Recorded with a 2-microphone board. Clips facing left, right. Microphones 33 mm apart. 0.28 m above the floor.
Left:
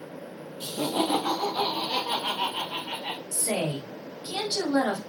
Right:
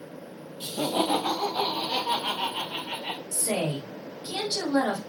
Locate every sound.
0.6 s laughter: 30° right (ahead or behind), 1.2 m; by 3.2 s 25° left (ahead or behind), 1.6 m
3.3 s a woman speaking: 30° left (ahead or behind), 1.2 m